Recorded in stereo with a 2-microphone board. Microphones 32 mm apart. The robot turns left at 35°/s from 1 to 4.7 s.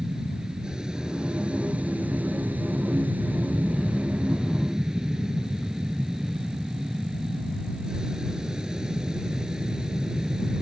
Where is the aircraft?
30° right; by 10.6 s 160° right.